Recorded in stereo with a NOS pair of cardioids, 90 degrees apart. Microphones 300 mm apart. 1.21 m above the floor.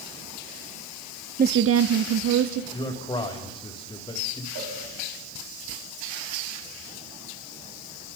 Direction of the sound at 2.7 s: 15° left.